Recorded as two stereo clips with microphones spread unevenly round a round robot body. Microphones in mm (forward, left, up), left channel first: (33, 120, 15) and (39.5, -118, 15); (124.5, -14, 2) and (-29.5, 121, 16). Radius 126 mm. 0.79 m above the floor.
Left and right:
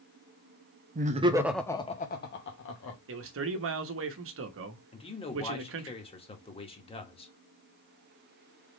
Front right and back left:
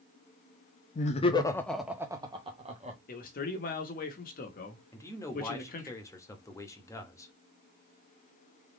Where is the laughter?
60° right, 0.8 m; by 3.0 s 80° left, 1.3 m.